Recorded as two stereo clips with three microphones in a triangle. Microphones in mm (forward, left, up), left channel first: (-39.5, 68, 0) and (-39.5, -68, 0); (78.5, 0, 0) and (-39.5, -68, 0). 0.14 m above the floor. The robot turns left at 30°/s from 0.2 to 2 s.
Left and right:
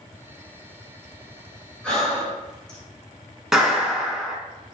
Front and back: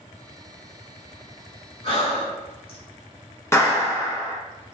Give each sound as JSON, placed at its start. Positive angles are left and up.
{"t": 1.8, "sound": "breathing", "azimuth_deg": 15, "distance_m": 1.5}
{"t": 3.5, "sound": "a clap", "azimuth_deg": -10, "distance_m": 0.9}